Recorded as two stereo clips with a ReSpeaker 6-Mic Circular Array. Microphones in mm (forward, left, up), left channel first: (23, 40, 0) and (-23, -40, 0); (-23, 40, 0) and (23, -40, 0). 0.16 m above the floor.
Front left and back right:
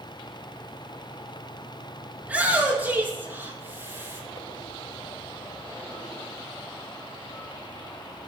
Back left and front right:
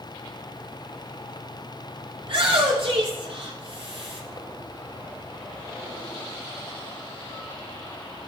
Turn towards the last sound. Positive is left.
turn(degrees=-55)